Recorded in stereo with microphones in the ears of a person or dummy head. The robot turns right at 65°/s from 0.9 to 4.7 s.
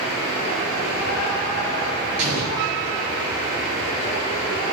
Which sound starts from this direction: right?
An explosion, at 2.2 s.